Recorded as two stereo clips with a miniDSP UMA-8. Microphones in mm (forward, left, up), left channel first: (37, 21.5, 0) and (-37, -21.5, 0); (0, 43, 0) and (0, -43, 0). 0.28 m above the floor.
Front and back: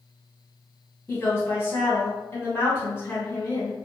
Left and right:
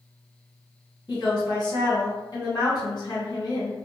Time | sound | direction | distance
1.1 | a woman speaking | 85° left | 1.8 m